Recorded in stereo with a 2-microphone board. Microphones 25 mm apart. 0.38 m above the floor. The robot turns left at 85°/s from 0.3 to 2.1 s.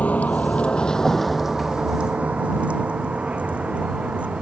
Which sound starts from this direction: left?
A vehicle, at 0.0 s.